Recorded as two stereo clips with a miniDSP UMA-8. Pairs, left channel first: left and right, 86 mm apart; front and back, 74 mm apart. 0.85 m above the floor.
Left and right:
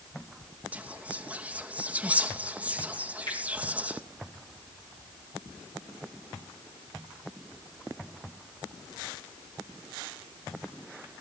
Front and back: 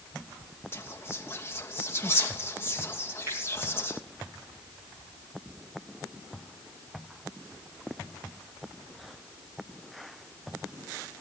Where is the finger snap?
125° left, 9.5 m.